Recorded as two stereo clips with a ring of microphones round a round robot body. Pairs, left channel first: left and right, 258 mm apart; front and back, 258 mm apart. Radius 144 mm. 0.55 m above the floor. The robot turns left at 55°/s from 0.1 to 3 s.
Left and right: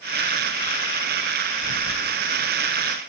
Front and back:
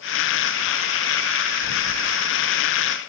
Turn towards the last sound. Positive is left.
turn(degrees=-105)